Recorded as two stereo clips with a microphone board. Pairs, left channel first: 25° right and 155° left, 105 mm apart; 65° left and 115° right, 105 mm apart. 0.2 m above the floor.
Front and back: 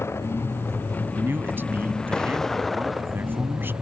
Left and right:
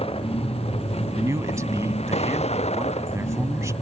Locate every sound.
0.0 s a vehicle: 45° left; by 3.8 s 75° left
1.1 s a man speaking: 150° right